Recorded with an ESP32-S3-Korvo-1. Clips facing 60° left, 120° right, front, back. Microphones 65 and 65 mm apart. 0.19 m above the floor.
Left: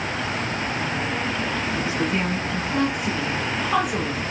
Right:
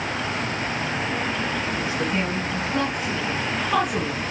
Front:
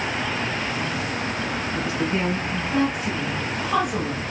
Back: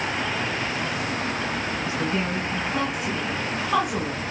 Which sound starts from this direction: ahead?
A woman speaking, at 1.8 s.